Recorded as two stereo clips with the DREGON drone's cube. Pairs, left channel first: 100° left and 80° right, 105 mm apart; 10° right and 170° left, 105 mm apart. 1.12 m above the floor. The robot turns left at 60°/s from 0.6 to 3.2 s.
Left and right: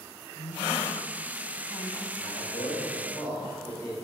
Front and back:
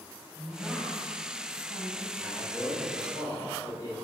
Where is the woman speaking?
100° left, 6.5 m; by 2.1 s 10° left, 6.5 m.